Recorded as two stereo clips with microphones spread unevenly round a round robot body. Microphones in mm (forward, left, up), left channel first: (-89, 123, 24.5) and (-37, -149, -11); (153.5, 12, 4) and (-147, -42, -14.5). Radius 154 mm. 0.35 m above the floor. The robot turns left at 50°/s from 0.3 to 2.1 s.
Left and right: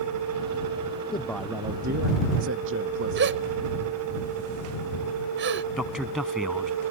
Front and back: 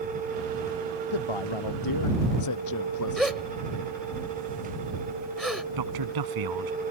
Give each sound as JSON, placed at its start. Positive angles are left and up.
{"t": 1.1, "sound": "a man speaking", "azimuth_deg": 25}
{"t": 3.2, "sound": "a gasp", "azimuth_deg": -80}
{"t": 5.8, "sound": "a man speaking", "azimuth_deg": -170}